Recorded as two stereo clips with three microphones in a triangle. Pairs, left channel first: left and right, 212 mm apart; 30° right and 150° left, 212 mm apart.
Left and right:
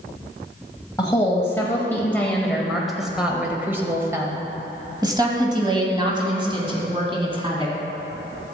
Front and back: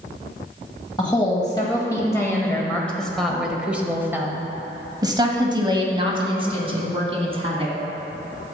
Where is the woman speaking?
25° left, 1.8 m; by 7.7 s 150° right, 3 m.